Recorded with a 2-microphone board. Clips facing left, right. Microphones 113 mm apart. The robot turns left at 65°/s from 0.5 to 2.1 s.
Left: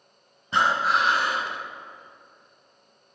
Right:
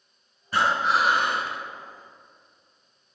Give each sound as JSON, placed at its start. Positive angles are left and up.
{"t": 0.5, "sound": "breathing", "azimuth_deg": 25, "distance_m": 0.9}